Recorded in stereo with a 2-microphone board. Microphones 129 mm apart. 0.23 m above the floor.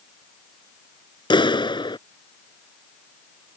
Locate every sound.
1.3 s a clap: 40° left (ahead or behind)